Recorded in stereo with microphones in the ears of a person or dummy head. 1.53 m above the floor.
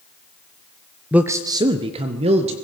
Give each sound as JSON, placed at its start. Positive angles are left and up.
{"t": 1.1, "sound": "a man speaking", "side_deg": -5, "distance_m": 0.7}